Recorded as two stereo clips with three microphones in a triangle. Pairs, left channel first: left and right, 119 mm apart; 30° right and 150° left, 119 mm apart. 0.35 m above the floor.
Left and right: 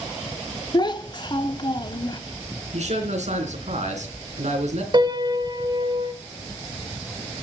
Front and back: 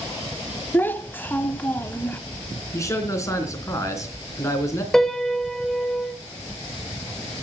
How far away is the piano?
About 1.0 m.